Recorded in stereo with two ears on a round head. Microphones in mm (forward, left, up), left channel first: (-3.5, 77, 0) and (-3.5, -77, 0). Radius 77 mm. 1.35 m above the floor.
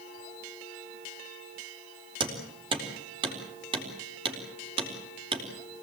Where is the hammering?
30° right (ahead or behind), 4 m.